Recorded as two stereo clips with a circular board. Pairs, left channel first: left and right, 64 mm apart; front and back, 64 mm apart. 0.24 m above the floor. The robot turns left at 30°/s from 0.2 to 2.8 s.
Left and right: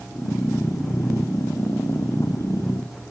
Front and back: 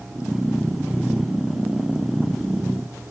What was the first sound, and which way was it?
Only background noise.